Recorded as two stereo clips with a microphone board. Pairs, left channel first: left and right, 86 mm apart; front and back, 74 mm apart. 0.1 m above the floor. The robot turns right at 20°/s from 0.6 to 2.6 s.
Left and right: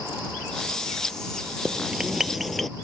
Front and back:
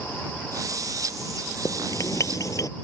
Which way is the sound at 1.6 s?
20° right.